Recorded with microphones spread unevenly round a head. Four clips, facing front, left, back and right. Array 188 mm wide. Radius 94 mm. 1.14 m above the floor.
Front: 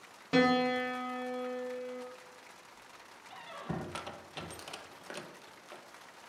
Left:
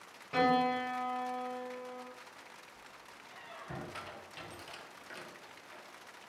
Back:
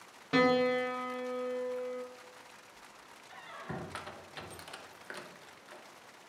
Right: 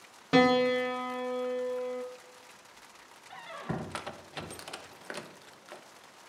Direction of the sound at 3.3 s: 65° right.